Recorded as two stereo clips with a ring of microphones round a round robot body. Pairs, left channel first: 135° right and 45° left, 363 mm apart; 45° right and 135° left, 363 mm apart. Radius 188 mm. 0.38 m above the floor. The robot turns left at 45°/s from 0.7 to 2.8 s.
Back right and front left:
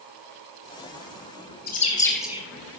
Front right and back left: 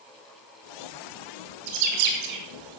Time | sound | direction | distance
1.7 | a bird | 160° left | 3 m